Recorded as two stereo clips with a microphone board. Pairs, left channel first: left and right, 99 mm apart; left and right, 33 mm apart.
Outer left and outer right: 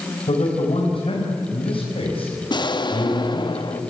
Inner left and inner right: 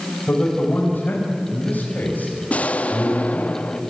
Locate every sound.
0.3 s a man speaking: 80° left, 5.5 m
2.5 s an explosion: 50° left (ahead or behind), 1.0 m